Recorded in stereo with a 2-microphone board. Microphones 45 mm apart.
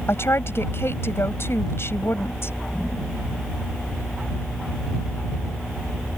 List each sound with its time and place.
0.1 s a woman speaking: 60° left (ahead or behind)